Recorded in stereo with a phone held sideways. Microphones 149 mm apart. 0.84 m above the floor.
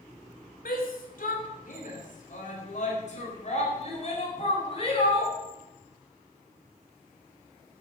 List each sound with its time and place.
0.7 s a shout: 70° left (ahead or behind), 3 m; by 5.3 s 40° left (ahead or behind), 4.5 m